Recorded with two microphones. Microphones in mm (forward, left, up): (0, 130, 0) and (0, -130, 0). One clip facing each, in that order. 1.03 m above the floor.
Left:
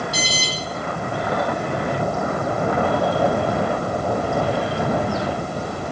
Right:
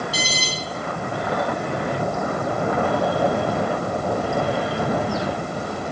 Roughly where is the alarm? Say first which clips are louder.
Left 1 dB; left.